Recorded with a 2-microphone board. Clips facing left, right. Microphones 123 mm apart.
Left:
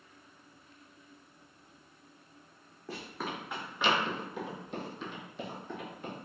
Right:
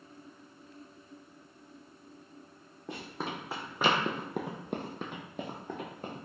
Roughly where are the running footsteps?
Right.